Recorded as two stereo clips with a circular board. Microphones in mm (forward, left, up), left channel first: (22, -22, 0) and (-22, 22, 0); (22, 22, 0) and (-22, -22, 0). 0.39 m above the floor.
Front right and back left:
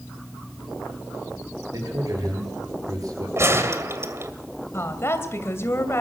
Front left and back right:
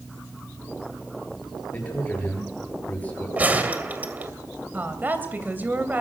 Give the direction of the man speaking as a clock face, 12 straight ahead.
8 o'clock.